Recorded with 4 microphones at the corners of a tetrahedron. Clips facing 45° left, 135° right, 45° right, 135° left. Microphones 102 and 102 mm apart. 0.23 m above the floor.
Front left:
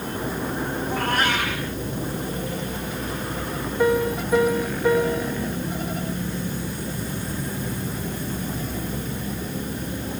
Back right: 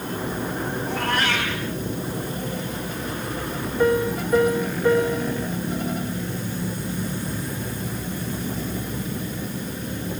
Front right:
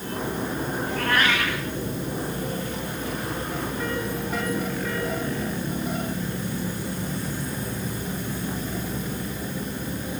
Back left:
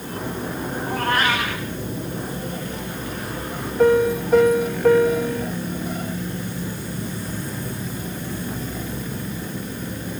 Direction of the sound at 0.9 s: 85° left.